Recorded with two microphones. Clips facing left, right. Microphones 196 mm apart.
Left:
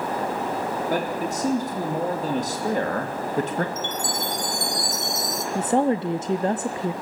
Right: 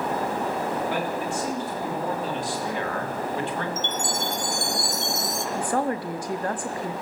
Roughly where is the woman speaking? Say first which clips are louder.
Left 6 dB; left.